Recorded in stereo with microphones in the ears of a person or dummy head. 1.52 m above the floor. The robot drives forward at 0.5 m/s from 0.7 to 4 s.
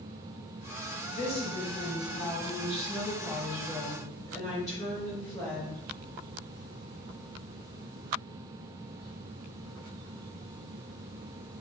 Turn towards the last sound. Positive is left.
turn(degrees=20)  # may be behind; listen again after turning